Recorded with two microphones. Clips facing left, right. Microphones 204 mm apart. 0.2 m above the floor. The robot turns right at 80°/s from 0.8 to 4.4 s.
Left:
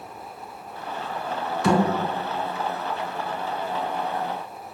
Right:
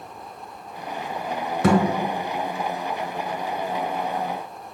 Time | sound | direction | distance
1.6 | a thud | 55° right (ahead or behind) | 0.9 m